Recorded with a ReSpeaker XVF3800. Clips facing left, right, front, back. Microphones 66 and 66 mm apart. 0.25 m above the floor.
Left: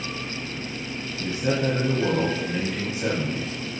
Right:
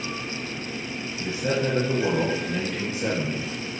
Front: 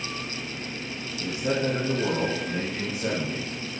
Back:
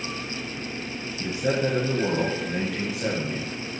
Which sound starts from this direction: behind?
A man speaking, at 1.2 s.